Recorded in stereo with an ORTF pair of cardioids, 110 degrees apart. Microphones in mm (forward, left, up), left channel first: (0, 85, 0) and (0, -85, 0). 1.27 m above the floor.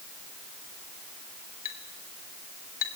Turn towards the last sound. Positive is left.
turn(degrees=55)